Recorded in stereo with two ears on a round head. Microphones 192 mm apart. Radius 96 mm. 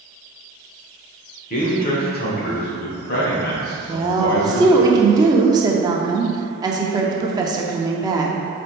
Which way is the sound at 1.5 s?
40° left (ahead or behind).